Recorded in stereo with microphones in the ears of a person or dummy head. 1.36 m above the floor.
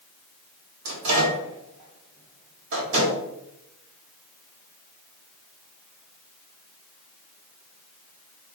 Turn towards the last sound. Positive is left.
turn(degrees=-65)  # may be behind; listen again after turning